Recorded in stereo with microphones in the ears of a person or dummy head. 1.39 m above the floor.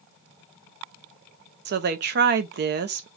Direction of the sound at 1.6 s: 50° right (ahead or behind).